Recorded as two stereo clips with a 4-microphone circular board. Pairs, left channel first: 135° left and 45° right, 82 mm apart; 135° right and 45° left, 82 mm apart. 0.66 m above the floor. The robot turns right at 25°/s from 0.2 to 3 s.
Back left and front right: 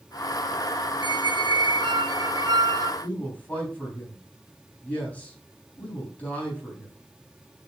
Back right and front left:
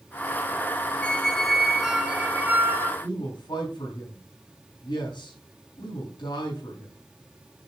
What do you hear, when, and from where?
1.0 s a squeak: 60° right, 0.5 m; by 2.9 s 10° right, 0.5 m
3.0 s a man speaking: 155° right, 4 m